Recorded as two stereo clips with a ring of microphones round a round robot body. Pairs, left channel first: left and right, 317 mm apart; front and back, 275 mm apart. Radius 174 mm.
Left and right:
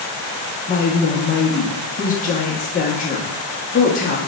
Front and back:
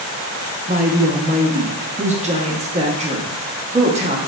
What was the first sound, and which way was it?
A woman speaking, 130° left.